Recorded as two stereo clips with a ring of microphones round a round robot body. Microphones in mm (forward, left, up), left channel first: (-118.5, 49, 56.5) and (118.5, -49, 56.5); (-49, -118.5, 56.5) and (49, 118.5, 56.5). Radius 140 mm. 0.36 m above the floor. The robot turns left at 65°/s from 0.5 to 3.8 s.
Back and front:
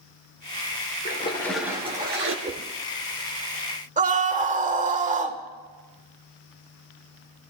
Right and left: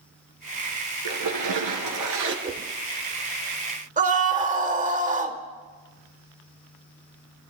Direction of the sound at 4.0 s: 25° left.